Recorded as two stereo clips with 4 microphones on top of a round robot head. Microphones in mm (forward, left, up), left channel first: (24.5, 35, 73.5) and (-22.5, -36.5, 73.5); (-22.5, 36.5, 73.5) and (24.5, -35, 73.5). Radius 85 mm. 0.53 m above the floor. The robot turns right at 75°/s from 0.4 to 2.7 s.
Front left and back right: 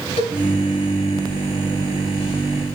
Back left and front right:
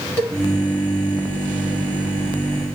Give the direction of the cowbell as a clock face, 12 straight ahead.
10 o'clock.